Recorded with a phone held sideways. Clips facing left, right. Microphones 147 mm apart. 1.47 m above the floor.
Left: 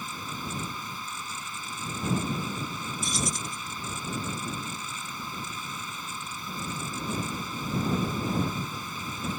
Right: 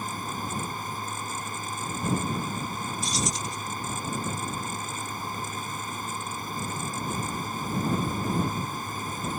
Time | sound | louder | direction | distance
0.0 | a fan | right 4 dB | 50° right (ahead or behind) | ?
3.0 | keys jangling | even | 50° left (ahead or behind) | ?